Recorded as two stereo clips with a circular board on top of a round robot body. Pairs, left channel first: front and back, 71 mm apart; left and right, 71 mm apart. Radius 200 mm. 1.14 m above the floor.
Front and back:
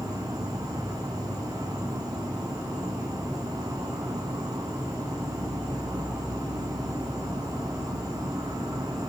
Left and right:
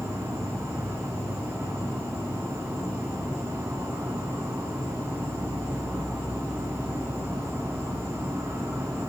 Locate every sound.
0.0 s an insect: 145° right, 1.3 m